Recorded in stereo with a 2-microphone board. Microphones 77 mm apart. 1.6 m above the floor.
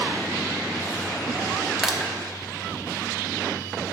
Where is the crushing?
5° right (ahead or behind), 1.0 m.